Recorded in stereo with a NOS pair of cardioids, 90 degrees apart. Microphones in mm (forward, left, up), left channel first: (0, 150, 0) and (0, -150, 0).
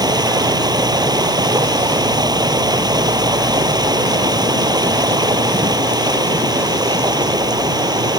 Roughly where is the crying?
No crying in this recording.